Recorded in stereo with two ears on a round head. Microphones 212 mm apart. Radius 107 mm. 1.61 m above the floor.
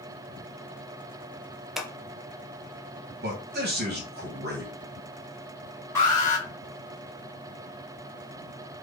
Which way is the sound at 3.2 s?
45° right (ahead or behind).